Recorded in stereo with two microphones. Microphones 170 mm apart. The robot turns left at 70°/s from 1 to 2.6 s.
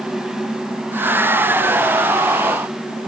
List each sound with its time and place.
Only background noise.